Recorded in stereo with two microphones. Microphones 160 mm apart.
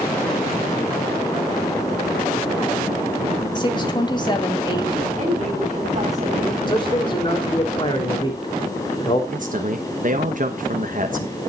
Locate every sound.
3.5 s a woman speaking: 30° left (ahead or behind), 2 m
5.2 s a woman speaking: 45° right (ahead or behind), 5 m
6.7 s a man speaking: 30° left (ahead or behind), 3.5 m
9.3 s a man speaking: 55° right (ahead or behind), 1.2 m